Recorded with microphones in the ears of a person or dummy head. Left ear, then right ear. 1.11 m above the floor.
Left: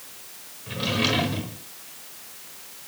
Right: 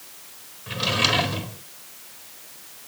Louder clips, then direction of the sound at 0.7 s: Right 3 dB; 20° right (ahead or behind).